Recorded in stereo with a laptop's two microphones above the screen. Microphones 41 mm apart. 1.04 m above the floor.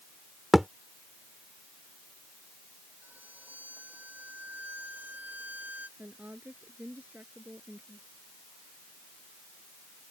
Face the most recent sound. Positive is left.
turn(degrees=-55)  # may be behind; listen again after turning